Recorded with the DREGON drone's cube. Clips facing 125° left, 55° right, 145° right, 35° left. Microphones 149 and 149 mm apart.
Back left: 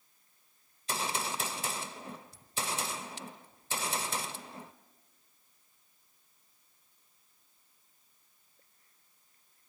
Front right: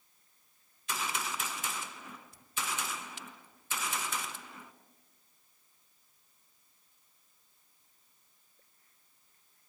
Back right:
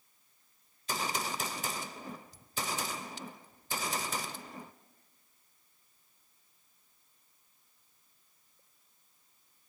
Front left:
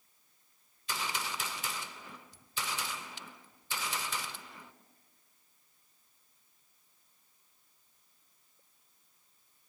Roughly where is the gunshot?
Behind.